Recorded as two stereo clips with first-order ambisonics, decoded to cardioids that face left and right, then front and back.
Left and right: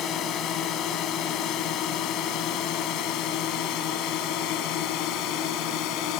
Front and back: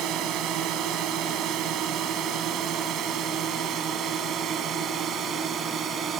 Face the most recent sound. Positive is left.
turn(degrees=120)